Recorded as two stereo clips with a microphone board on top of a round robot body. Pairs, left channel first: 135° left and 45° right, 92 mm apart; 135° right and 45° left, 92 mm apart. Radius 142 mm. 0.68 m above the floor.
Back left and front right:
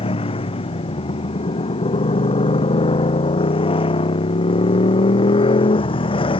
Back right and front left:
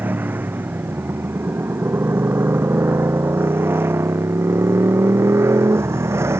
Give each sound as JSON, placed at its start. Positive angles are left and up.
{"t": 0.0, "sound": "a motorcycle", "azimuth_deg": 115}